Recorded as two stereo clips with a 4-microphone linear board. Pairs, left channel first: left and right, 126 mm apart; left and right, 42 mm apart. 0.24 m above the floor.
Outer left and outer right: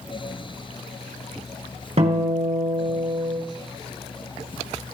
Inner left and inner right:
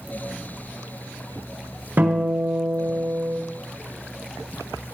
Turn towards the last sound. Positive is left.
turn(degrees=-60)  # may be behind; listen again after turning